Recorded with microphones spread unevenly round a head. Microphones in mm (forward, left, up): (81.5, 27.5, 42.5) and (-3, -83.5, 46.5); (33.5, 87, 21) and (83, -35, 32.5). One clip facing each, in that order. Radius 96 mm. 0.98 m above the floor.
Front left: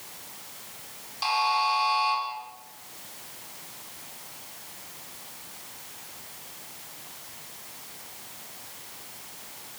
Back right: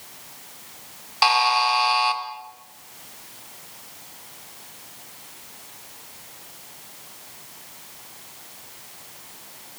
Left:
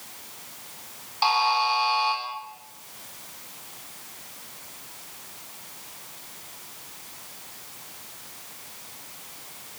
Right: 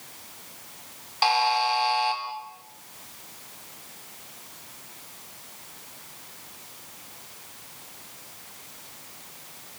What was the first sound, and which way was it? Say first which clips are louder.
A buzzer: back right 6 dB, even; 120° right.